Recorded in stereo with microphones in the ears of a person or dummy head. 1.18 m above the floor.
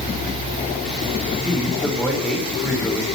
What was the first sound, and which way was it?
A man speaking, 5° right (ahead or behind).